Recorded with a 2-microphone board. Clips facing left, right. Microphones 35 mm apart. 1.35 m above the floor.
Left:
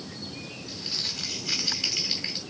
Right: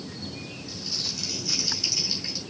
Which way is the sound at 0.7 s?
45° left (ahead or behind).